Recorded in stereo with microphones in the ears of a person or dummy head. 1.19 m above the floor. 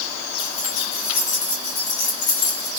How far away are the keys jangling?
About 3.5 m.